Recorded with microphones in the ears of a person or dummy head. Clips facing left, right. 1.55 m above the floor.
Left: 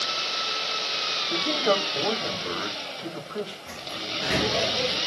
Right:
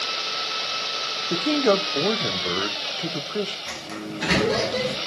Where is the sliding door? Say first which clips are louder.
Right 4 dB; 80° right, 1.9 m.